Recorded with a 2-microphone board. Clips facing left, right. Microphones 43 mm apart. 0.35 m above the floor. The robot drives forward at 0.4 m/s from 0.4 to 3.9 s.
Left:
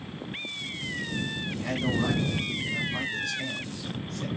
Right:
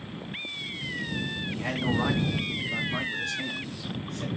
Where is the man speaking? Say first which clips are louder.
Even; 45° right (ahead or behind), 3 m; by 4.3 s 35° right (ahead or behind), 3.5 m.